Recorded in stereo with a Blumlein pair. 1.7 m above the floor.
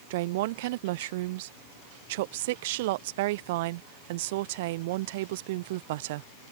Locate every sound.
0.1 s a woman speaking: 50° right